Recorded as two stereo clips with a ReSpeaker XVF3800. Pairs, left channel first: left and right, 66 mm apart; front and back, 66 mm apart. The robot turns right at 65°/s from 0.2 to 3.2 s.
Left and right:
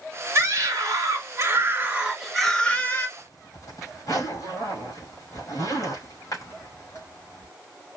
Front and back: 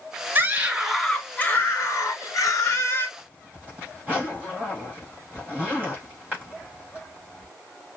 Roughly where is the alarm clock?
I don't hear an alarm clock.